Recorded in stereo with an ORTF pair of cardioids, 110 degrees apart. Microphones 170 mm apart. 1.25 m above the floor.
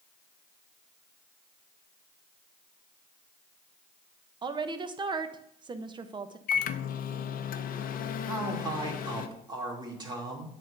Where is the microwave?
55° left, 0.7 m.